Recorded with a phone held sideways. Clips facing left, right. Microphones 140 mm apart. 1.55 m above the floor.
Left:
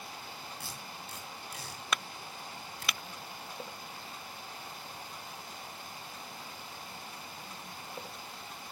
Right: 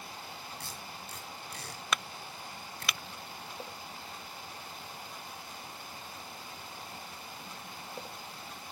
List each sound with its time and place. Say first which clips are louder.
0.6 s tape being pulled: even; 5° left (ahead or behind), 5.5 m